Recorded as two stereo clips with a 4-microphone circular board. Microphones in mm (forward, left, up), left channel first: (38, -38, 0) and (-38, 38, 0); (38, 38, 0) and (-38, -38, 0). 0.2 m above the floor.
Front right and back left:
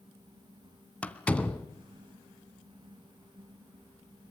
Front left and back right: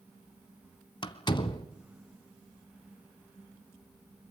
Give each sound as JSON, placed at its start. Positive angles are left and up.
{"t": 1.0, "sound": "a door slam", "azimuth_deg": 30, "distance_m": 1.5}